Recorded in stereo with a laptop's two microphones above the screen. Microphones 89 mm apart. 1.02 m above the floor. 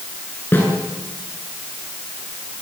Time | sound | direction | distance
0.5 | a snare drum | 25° left (ahead or behind) | 9 m